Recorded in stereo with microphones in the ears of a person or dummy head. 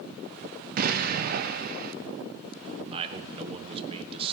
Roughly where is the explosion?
Right.